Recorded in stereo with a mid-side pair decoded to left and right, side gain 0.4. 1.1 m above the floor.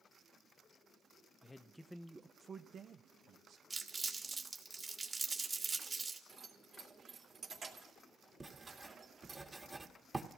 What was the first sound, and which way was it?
A man speaking, 30° left.